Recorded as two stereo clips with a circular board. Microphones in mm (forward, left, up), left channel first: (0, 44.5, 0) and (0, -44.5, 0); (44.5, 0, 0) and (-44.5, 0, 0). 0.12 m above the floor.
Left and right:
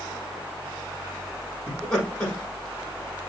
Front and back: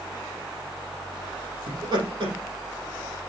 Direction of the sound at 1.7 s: 170° left.